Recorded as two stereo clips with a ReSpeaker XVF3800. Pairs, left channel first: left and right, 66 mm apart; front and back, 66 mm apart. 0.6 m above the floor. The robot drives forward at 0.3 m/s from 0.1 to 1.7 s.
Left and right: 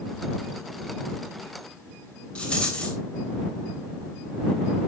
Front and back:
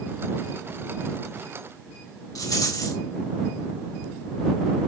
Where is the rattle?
15° left, 2 m.